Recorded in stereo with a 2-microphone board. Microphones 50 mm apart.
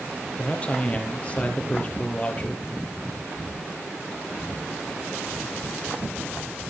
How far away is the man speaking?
About 2.5 m.